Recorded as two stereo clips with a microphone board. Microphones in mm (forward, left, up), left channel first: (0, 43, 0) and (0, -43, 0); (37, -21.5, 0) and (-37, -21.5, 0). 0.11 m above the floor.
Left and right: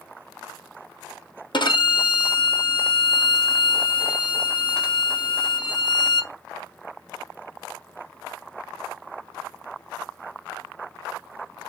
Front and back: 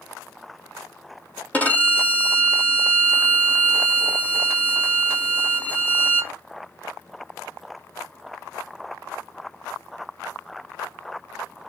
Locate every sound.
1.5 s a violin: 70° left, 1.7 m